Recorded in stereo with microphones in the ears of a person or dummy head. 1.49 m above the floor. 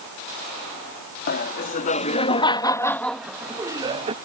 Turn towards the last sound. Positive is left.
turn(degrees=-25)  # may be behind; listen again after turning